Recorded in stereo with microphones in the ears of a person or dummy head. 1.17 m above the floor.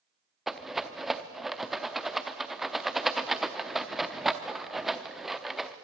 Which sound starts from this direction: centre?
A rattle, at 0.5 s.